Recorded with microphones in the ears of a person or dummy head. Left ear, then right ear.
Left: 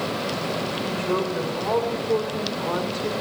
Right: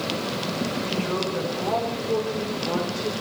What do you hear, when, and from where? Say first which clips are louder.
0.8 s a woman speaking: left 3 dB; 35° left (ahead or behind), 7.5 m